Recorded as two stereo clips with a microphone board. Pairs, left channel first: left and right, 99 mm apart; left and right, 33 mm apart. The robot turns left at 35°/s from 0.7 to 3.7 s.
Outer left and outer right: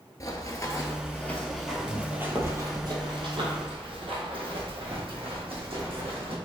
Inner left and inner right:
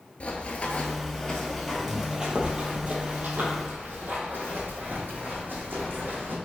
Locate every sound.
0.2 s running footsteps: 35° left (ahead or behind), 1.3 m; by 6.3 s 75° right (ahead or behind), 4 m